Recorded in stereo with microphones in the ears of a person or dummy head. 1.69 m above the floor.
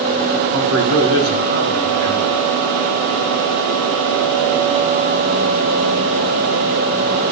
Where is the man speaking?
80° right, 2 m.